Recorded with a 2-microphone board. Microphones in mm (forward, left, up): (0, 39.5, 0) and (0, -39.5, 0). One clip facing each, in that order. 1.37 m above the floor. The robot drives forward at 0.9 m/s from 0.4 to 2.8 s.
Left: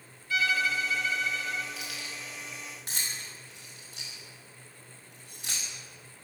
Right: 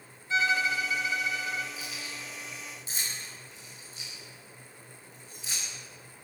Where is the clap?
No clap in this recording.